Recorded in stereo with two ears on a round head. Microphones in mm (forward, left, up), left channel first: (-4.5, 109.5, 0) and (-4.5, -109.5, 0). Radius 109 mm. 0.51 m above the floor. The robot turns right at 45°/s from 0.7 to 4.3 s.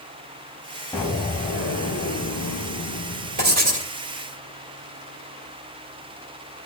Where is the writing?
45° right (ahead or behind), 2 m; by 3.9 s 25° right (ahead or behind), 2 m.